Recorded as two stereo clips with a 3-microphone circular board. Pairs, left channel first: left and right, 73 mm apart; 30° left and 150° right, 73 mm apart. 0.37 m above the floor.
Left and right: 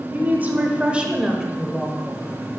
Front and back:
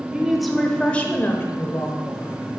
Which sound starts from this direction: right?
A woman speaking, at 0.1 s.